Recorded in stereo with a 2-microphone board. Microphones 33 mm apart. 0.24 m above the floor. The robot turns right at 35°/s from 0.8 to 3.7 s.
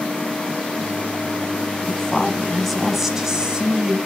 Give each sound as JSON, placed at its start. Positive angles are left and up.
{"t": 1.9, "sound": "a woman speaking", "azimuth_deg": 150, "distance_m": 1.4}